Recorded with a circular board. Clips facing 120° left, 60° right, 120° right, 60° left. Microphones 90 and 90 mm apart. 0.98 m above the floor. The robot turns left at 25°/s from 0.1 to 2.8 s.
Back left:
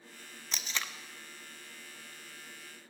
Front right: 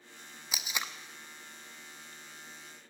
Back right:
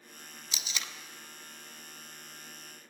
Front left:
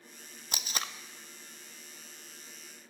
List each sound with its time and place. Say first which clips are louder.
0.5 s tape being pulled: front right 1 dB, front left 4 dB; 20° left, 0.6 m; by 0.9 s 10° left, 0.6 m